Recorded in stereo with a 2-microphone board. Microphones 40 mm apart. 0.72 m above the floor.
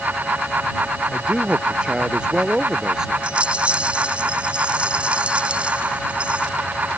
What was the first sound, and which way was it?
A man speaking, 30° right (ahead or behind).